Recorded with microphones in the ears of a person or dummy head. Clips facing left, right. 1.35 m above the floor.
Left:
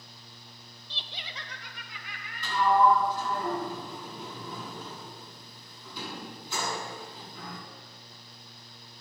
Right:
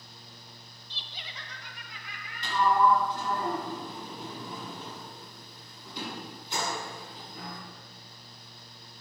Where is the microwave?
No microwave in this recording.